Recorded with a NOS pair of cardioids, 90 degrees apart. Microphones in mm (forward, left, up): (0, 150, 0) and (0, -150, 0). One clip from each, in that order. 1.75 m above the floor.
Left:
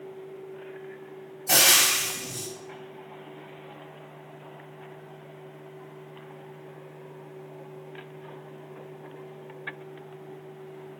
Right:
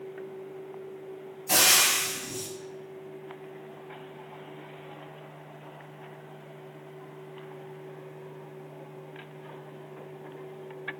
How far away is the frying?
About 1.2 m.